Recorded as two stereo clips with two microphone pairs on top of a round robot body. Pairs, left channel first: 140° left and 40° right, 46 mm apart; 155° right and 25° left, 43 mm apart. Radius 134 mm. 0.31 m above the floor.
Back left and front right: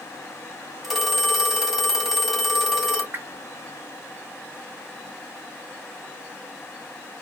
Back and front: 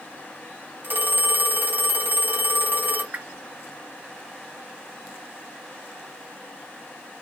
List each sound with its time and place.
0.8 s a phone ringing: 55° left, 2 m
3.1 s a whoosh: 10° right, 1.2 m